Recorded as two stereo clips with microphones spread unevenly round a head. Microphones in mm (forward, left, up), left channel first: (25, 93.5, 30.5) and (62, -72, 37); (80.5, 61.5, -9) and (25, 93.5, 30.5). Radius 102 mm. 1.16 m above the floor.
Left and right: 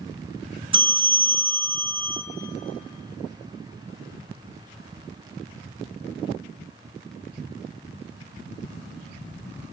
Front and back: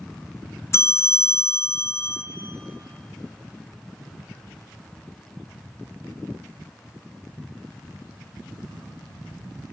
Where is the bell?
20° right, 0.6 m.